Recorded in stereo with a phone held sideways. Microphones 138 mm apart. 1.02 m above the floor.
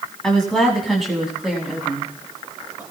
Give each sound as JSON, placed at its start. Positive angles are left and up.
{"t": 0.2, "sound": "a woman speaking", "side_deg": 5, "distance_m": 8.0}